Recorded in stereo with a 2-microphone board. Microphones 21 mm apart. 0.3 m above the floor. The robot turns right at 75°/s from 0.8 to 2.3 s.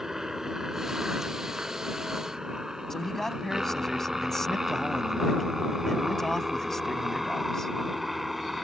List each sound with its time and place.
0.0 s a helicopter: 20° right (ahead or behind); by 8.7 s 10° right (ahead or behind)
2.9 s a man speaking: 15° left (ahead or behind)